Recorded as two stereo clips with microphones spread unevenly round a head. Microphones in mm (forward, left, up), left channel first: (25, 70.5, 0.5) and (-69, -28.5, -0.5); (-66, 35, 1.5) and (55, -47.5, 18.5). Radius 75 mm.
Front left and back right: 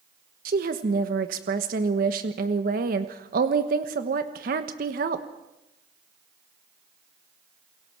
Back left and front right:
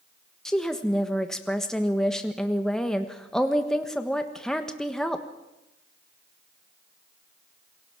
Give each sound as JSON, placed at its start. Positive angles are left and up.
{"t": 0.5, "sound": "a woman speaking", "azimuth_deg": -130, "distance_m": 1.3}